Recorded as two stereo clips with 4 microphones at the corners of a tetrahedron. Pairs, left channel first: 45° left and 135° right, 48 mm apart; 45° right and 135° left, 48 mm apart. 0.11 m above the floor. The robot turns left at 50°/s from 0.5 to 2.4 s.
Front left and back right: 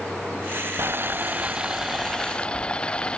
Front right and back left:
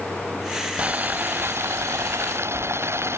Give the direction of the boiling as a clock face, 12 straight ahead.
6 o'clock.